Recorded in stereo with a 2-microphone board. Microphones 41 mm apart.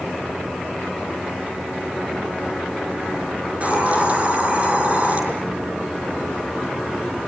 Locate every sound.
3.5 s a hiss: 35° right (ahead or behind), 6 m